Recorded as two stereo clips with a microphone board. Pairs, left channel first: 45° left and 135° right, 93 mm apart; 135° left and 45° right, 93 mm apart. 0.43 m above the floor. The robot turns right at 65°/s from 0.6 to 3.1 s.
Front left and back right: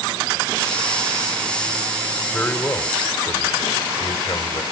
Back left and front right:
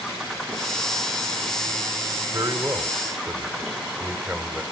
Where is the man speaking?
30° right, 1.3 m; by 4.6 s 20° left, 1.3 m.